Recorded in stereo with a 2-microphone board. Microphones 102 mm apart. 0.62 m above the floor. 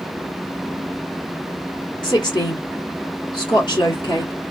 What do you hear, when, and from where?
2.0 s a woman speaking: 45° left (ahead or behind), 1.3 m